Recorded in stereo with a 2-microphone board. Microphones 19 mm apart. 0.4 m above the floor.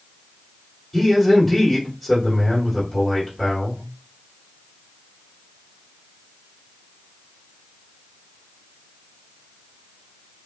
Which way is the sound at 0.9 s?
Centre (ahead or behind).